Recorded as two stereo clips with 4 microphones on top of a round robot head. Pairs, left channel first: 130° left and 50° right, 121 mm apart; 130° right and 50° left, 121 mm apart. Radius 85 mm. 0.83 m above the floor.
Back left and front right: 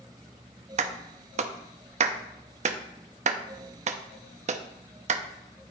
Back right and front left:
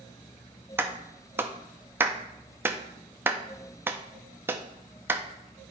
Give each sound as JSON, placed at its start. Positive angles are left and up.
{"t": 0.8, "sound": "a clap", "azimuth_deg": -25, "distance_m": 0.7}